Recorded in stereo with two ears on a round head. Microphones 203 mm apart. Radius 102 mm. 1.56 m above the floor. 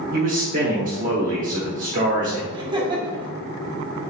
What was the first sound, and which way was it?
A man speaking, 35° right (ahead or behind).